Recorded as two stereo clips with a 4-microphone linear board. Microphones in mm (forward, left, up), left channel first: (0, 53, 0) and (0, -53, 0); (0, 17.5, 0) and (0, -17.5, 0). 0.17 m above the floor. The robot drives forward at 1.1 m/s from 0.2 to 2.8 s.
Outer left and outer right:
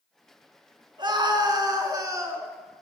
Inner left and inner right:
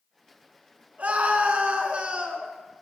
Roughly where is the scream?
Right.